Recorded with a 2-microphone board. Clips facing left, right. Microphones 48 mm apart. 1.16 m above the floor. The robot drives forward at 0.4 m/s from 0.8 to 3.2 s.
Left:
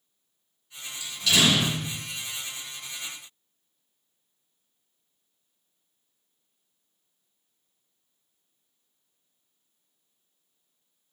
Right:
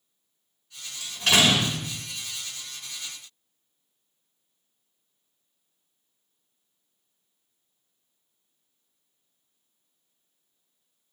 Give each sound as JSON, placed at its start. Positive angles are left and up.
{"t": 1.0, "sound": "a door slam", "side_deg": -50, "distance_m": 3.0}